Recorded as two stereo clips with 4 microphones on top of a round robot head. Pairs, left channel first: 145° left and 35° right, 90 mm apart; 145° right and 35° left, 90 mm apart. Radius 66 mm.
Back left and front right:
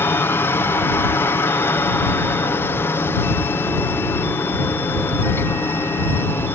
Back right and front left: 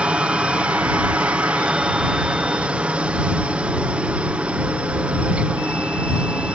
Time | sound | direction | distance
0.0 | a helicopter | 105° left | ?